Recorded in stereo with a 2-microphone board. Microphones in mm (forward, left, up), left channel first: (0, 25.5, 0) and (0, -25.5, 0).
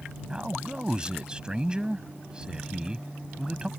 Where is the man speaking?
20° right (ahead or behind).